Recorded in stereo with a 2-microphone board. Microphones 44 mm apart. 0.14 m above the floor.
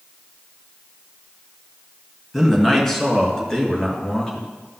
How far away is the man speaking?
About 1.9 m.